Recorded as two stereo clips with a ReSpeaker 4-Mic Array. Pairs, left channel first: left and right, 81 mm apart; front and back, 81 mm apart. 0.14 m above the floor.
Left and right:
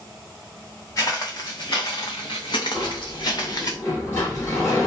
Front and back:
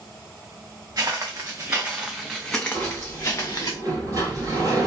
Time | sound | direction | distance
1.0 | footsteps | 135° left | 1.0 m
2.7 | a sliding door | 145° left | 1.3 m